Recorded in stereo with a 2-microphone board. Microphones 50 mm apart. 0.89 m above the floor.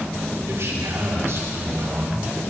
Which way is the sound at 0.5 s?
60° right (ahead or behind).